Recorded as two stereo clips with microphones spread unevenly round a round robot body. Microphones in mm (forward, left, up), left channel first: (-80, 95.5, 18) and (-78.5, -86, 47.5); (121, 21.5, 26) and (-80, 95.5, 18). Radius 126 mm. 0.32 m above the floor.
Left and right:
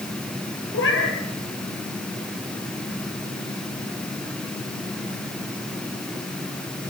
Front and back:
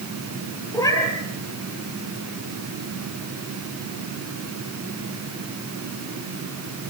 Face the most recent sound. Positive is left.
turn(degrees=55)